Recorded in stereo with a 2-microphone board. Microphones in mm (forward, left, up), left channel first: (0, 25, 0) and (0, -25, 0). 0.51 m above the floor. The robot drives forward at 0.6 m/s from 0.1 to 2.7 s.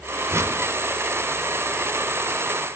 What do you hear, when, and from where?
0.3 s a whoosh: 60° right (ahead or behind), 0.8 m; by 0.6 s 65° right (ahead or behind), 0.8 m